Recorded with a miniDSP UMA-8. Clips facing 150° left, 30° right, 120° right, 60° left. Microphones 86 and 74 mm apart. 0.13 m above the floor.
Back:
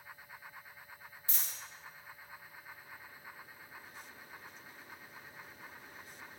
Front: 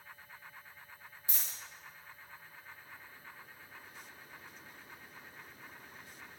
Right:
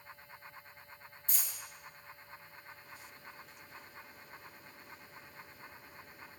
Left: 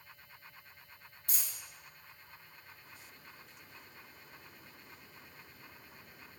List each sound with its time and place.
1.3 s a dropped coin: 45° left, 1.9 m